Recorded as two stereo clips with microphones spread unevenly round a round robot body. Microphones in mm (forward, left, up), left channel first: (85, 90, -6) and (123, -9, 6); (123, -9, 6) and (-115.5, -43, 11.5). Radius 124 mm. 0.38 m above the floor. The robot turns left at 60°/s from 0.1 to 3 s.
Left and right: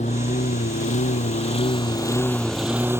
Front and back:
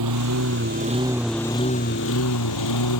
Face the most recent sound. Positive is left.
turn(degrees=-5)